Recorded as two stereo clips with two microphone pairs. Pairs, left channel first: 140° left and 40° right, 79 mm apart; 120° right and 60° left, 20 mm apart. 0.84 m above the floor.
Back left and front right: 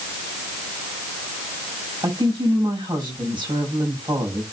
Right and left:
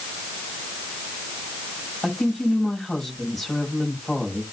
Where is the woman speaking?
50° right, 5.5 m.